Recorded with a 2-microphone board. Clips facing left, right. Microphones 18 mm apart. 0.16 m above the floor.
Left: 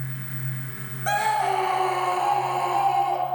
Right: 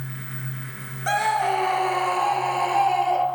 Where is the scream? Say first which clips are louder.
Right 1 dB; 5° right (ahead or behind), 2.5 m; by 3.3 s 20° right (ahead or behind), 3 m.